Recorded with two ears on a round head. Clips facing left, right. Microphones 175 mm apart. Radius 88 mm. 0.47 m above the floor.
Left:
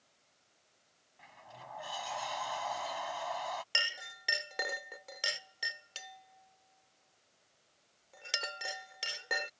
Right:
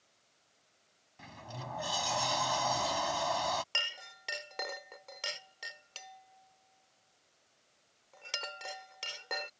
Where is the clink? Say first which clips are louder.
Left 1 dB; 15° left (ahead or behind).